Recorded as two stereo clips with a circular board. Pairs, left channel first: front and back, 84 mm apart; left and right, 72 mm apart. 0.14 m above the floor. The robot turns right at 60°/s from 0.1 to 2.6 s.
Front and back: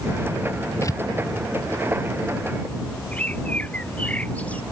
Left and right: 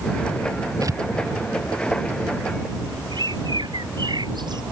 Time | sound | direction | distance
0.8 | tearing paper | 50° right | ?
3.1 | a bird | 75° right | ?